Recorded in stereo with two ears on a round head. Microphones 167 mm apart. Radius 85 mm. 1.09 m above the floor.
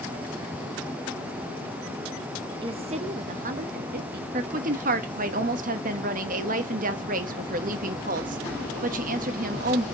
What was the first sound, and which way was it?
A woman speaking, 25° right (ahead or behind).